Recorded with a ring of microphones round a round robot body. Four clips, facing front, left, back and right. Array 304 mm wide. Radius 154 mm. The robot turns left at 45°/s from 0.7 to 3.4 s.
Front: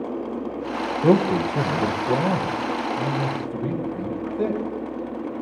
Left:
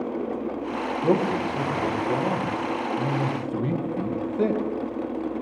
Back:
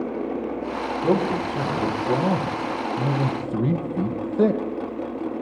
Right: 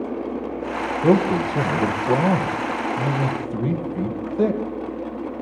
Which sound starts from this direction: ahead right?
A man speaking, at 1.0 s.